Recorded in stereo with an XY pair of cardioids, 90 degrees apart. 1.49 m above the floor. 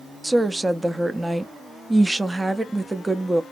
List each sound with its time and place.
0.2 s a woman speaking: 15° right, 0.7 m